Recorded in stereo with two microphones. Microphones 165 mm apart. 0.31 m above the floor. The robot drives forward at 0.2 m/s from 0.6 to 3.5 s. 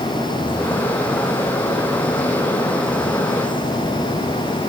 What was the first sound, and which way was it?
Only background noise.